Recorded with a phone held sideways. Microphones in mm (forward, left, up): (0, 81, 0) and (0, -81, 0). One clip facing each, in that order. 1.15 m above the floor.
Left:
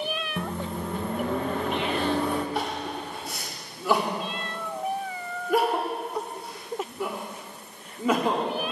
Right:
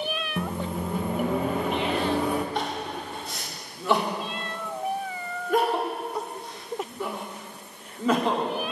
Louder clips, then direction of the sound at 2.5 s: Even; 5° left (ahead or behind).